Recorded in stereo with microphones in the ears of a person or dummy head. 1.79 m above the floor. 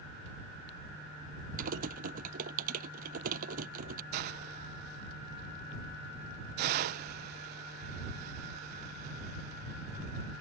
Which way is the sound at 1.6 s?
55° right (ahead or behind).